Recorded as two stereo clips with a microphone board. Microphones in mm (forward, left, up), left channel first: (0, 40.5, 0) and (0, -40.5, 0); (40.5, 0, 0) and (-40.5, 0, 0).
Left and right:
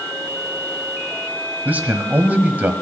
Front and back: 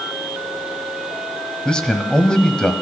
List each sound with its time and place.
1.6 s a man speaking: 65° right, 1.1 m